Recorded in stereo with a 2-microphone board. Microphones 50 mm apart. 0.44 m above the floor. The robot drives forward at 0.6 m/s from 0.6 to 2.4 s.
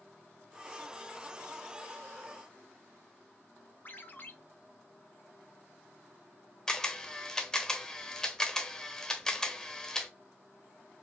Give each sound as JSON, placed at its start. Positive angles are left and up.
{"t": 3.9, "sound": "a ringtone", "side_deg": 40, "distance_m": 0.7}
{"t": 6.7, "sound": "a camera shutter", "side_deg": 10, "distance_m": 0.7}